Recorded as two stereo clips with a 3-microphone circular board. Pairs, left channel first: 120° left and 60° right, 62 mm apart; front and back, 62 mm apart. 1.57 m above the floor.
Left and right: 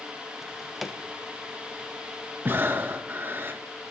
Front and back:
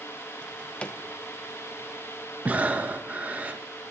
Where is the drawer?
25° left, 0.6 m.